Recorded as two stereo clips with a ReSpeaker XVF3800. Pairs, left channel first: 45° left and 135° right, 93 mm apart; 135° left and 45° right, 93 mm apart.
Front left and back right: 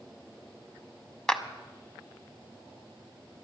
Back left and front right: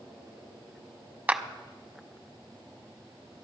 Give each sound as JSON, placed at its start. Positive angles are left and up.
{"t": 1.3, "sound": "a clap", "azimuth_deg": -20, "distance_m": 0.9}